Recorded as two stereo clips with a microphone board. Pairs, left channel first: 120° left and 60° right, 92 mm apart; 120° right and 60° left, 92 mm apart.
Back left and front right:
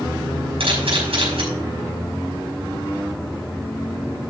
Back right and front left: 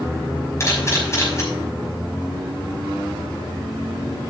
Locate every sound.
0.6 s a camera shutter: 60° right, 5 m